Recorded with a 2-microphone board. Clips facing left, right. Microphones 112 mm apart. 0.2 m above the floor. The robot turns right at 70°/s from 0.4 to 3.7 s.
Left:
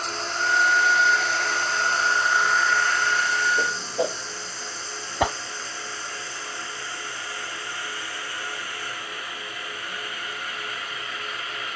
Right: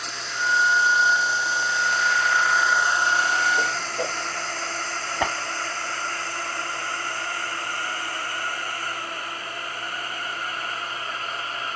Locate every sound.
0.0 s a drone: 45° left (ahead or behind); by 11.8 s 40° right (ahead or behind)
3.6 s a whoosh: 10° left (ahead or behind); by 4.2 s 15° left (ahead or behind)
5.2 s a whoosh: 15° left (ahead or behind)